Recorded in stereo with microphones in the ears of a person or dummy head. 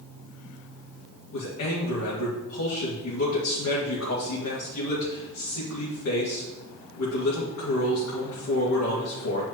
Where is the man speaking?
80° left, 1.9 m.